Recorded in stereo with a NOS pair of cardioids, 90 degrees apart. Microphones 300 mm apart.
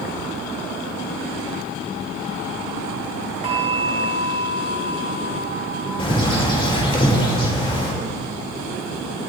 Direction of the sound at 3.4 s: 20° right.